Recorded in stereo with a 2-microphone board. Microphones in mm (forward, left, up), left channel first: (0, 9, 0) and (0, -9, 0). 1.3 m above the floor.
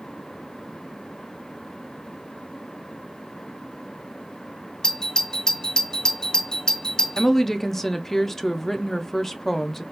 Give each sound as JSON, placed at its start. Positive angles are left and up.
{"t": 4.8, "sound": "a doorbell", "side_deg": 45, "distance_m": 0.5}
{"t": 7.2, "sound": "a woman speaking", "side_deg": 20, "distance_m": 0.6}